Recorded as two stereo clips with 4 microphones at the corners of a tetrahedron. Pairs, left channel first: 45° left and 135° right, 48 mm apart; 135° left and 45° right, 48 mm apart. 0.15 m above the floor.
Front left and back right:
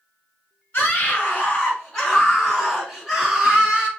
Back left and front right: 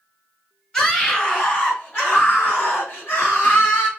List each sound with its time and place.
0.7 s a scream: 75° left, 1.6 m; by 3.9 s 160° left, 2 m